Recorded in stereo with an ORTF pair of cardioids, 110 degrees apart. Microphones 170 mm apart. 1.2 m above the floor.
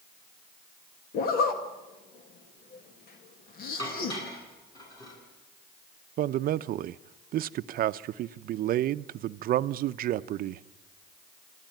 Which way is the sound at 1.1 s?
60° left.